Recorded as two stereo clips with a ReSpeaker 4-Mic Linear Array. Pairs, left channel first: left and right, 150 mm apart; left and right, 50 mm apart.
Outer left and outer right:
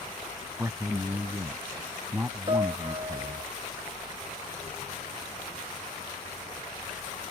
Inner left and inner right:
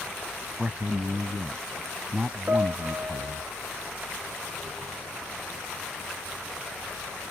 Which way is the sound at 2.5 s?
35° right (ahead or behind).